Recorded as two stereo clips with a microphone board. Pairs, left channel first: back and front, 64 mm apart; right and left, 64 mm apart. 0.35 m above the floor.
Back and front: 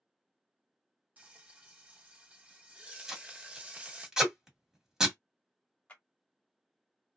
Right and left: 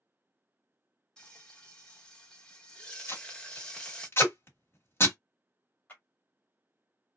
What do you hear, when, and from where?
1.2 s frying: 30° right, 0.9 m
3.1 s tape being pulled: 75° right, 1.5 m
5.9 s a clap: 130° right, 1.3 m